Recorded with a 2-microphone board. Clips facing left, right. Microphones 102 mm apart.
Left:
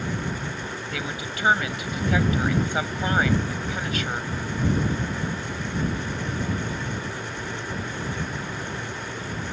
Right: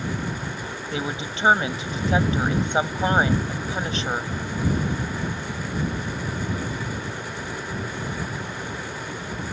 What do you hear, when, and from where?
0.9 s a woman speaking: 25° right (ahead or behind)